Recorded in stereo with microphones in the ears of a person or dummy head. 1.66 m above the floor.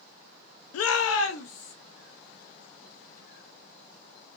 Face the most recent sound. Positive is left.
turn(degrees=90)